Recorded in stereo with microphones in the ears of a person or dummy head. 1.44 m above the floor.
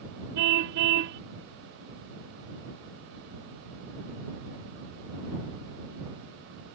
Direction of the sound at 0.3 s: 65° right (ahead or behind).